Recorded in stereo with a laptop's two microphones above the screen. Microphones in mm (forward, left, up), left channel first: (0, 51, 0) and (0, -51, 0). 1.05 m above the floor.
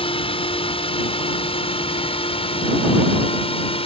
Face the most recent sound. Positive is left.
turn(degrees=65)  # may be behind; listen again after turning